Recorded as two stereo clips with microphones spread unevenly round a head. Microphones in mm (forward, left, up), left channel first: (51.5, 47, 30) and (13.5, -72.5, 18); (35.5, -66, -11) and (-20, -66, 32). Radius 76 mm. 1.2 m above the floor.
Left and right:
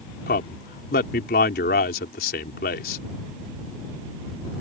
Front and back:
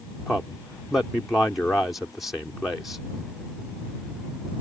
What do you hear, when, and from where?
0.3 s a man speaking: 85° left